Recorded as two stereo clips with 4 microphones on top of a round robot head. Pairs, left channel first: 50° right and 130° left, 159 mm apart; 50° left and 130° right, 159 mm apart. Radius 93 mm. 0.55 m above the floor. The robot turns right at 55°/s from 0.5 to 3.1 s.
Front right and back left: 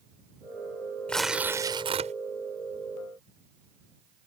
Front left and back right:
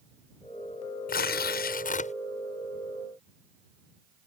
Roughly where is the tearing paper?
Ahead left.